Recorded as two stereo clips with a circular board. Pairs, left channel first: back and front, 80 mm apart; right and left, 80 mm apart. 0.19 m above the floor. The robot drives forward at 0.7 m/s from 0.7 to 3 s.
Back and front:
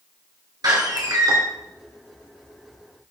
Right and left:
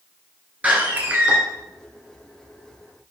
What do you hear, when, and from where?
0.6 s a door slam: 20° left, 2 m; by 1.4 s 25° left, 1.6 m